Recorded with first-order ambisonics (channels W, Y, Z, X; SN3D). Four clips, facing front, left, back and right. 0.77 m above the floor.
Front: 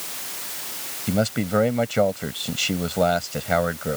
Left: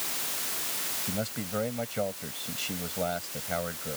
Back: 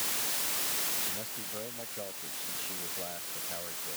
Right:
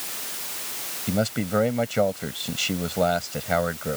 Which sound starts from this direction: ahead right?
A man speaking, at 1.1 s.